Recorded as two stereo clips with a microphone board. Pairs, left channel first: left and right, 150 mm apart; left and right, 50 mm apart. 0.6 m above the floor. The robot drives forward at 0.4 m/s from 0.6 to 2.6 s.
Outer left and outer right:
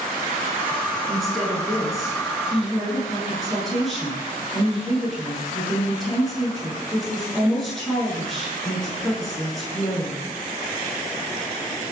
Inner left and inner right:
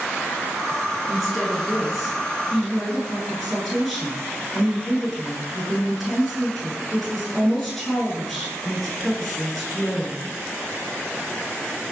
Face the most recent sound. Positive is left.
turn(degrees=0)  # may be behind; listen again after turning